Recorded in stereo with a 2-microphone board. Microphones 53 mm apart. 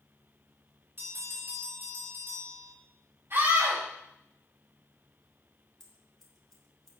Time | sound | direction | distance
1.0 | a bell | 40° right (ahead or behind) | 2.5 m
3.3 | a scream | 50° right (ahead or behind) | 6 m
5.8 | scissors | 5° left (ahead or behind) | 2.5 m